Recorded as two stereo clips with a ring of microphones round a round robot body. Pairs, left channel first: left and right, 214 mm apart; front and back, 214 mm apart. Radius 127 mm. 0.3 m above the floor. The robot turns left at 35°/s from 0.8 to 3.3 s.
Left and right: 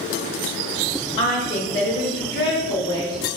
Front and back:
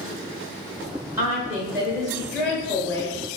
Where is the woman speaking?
125° left, 1.2 m; by 3.3 s 50° left, 1.2 m.